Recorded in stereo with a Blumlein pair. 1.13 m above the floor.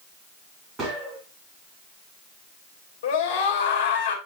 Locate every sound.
0.8 s a gunshot: 20° right, 2.5 m
3.0 s a scream: 50° left, 3.5 m